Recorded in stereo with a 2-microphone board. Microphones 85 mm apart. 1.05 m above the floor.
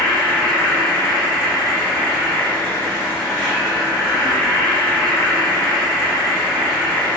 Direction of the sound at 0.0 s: 10° left (ahead or behind).